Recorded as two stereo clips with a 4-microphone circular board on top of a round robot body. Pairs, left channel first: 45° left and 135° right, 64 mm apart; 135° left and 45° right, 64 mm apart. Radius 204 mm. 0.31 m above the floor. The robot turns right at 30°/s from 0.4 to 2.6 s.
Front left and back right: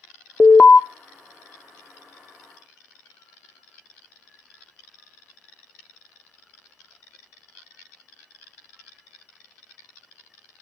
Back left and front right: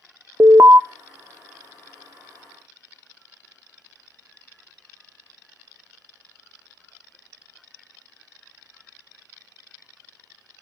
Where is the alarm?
25° right, 0.7 m; by 0.8 s 15° right, 0.7 m.